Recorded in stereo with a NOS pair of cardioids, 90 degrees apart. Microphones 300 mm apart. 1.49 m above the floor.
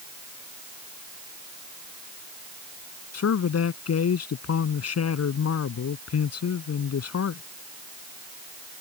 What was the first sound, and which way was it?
A man speaking, 55° left.